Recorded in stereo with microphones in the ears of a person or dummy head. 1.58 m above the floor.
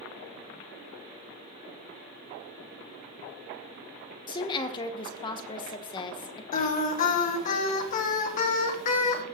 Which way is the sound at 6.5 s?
40° left (ahead or behind).